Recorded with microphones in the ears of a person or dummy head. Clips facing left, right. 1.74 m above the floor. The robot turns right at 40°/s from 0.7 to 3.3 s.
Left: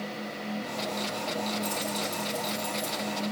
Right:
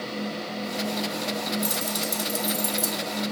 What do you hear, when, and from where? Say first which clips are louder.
1.6 s keys jangling: right 2 dB; 40° right (ahead or behind), 2.5 m; by 3.0 s 75° right (ahead or behind), 2.5 m